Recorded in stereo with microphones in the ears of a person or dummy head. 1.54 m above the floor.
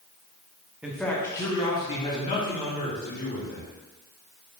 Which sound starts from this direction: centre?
A man speaking, at 0.8 s.